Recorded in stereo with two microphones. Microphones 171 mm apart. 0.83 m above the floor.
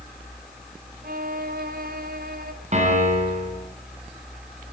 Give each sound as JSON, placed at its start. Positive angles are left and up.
{"t": 1.0, "sound": "a violin", "side_deg": -60, "distance_m": 2.5}
{"t": 2.7, "sound": "a piano", "side_deg": -45, "distance_m": 8.0}